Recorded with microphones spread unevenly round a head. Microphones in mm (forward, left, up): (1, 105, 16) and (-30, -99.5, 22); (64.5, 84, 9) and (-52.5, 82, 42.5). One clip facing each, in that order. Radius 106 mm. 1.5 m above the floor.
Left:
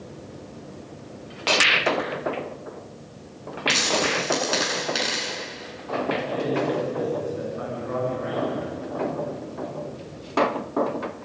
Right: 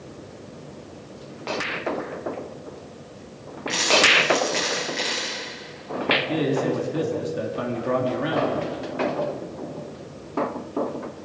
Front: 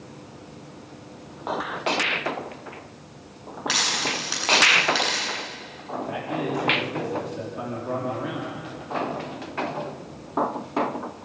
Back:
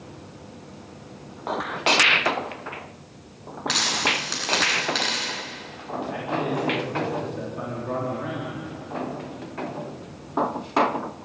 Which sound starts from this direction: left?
A dropped coin, at 3.7 s.